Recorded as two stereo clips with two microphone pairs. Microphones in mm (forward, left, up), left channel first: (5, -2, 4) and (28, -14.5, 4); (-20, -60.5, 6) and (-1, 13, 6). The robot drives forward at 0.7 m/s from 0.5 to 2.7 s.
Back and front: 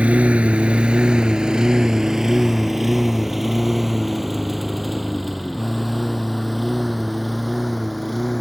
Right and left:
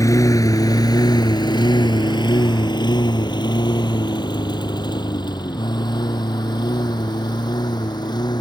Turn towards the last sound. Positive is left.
turn(degrees=-120)